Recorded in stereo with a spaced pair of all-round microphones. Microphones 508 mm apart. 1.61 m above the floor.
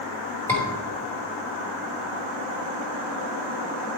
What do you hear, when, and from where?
0.5 s a scream: 5° left (ahead or behind), 5 m